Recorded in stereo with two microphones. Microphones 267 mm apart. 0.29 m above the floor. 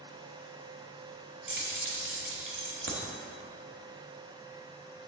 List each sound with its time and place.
1.5 s keys jangling: 50° right (ahead or behind), 1.1 m